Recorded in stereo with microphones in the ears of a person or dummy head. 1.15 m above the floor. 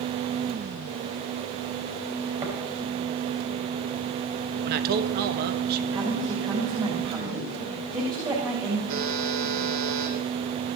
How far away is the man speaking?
About 1.4 m.